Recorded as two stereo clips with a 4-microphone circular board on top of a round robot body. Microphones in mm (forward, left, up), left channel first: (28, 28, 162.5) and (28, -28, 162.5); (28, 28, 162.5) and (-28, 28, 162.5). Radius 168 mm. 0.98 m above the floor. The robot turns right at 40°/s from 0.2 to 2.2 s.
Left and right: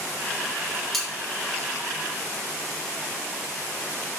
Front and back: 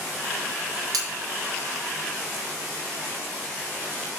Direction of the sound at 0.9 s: 175° left.